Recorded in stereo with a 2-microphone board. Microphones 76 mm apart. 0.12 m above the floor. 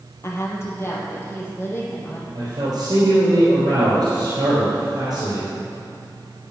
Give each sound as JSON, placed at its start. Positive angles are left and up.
{"t": 0.2, "sound": "a woman speaking", "side_deg": 35, "distance_m": 2.5}
{"t": 2.4, "sound": "a man speaking", "side_deg": -60, "distance_m": 3.5}